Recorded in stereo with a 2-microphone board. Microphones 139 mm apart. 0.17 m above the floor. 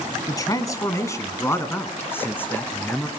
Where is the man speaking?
25° left (ahead or behind), 1.6 m; by 3.1 s 10° left (ahead or behind), 2.5 m.